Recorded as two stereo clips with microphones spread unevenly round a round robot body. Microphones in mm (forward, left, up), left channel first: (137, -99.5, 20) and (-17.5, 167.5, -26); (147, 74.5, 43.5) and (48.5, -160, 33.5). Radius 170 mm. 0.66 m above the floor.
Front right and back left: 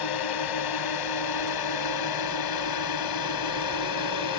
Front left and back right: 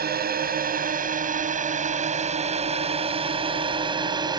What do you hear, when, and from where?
0.0 s a drone: 60° right; by 4.4 s 40° right